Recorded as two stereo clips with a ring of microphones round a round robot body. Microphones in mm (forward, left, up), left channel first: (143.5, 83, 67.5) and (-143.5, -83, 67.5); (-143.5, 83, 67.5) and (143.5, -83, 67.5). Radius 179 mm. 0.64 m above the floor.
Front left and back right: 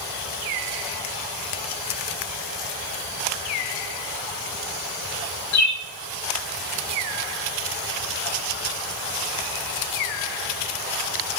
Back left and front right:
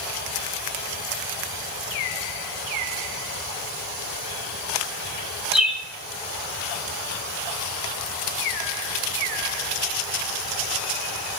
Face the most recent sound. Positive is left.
turn(degrees=60)